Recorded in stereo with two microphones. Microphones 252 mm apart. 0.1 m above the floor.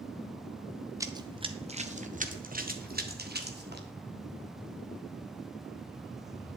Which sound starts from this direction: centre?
Running footsteps, at 1.0 s.